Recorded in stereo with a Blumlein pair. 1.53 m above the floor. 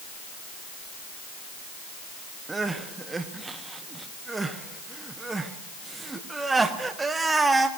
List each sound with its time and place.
2.5 s crying: 10° right, 1.1 m